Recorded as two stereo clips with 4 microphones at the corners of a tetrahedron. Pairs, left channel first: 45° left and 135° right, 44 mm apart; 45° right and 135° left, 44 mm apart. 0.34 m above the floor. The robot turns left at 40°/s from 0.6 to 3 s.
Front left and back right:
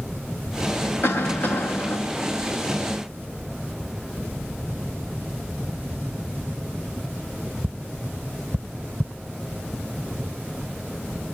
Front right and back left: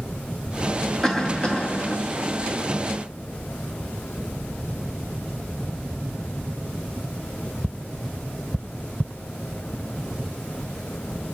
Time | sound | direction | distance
1.0 | a cough | 40° left | 2.5 m